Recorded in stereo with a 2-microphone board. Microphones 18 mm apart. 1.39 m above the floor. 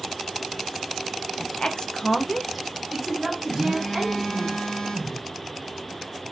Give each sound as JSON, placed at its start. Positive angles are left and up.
{"t": 1.4, "sound": "a woman speaking", "side_deg": 65, "distance_m": 0.7}
{"t": 3.5, "sound": "a phone buzzing", "side_deg": 25, "distance_m": 1.1}